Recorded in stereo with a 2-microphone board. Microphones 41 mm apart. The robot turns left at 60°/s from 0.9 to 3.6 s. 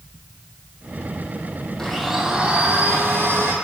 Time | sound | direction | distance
1.8 | a blender | 15° left | 0.9 m